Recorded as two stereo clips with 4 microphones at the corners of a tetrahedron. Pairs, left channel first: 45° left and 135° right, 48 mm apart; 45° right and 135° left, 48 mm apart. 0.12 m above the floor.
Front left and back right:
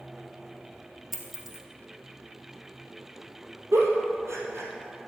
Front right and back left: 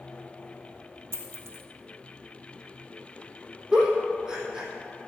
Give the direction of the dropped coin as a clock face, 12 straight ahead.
7 o'clock.